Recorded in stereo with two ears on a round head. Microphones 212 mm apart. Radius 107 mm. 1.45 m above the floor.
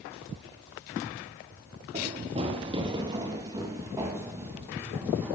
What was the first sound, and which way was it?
Running footsteps, 25° right (ahead or behind).